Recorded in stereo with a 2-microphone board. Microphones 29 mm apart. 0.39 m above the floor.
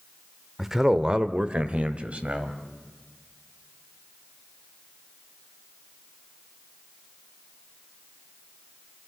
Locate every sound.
0.6 s a man speaking: 10° right (ahead or behind), 0.8 m; by 2.6 s 55° right (ahead or behind), 1.9 m